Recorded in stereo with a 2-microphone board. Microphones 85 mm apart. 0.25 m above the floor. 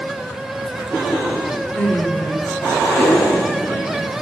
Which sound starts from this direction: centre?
Laughter, at 1.8 s.